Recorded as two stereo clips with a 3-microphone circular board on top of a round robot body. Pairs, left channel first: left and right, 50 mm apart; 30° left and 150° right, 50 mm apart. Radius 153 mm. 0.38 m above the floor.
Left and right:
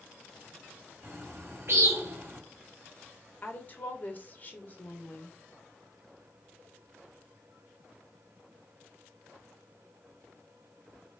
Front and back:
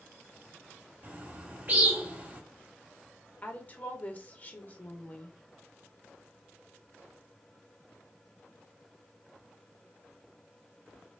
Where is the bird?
100° right, 1.7 m.